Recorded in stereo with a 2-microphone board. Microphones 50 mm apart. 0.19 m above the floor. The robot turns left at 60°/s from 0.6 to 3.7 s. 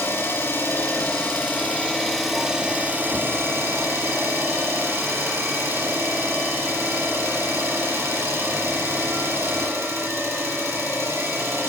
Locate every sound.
0.0 s an engine running: 100° left, 3 m; by 11.7 s 85° right, 3 m